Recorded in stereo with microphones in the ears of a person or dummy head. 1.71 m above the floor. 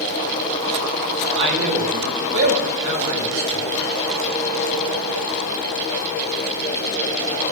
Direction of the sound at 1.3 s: 60° right (ahead or behind).